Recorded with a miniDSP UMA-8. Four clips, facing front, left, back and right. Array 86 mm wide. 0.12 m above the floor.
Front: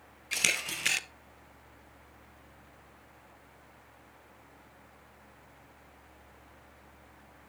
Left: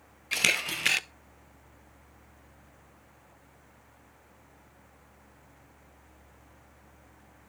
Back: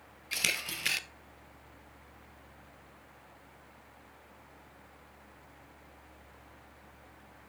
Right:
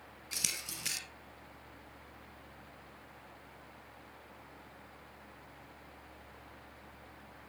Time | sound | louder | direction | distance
0.3 | a camera shutter | left 16 dB, front 2 dB | 80° left | 0.5 m